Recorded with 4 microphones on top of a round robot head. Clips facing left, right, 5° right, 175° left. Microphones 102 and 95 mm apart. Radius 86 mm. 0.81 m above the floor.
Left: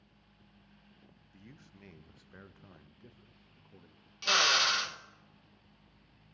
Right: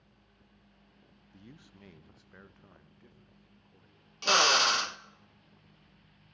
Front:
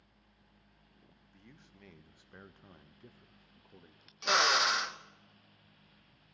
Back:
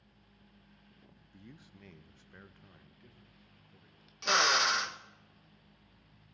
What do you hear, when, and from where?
1.3 s a man speaking: 135° right, 0.9 m; by 4.1 s 30° left, 1.6 m
4.2 s a drill: 95° right, 0.9 m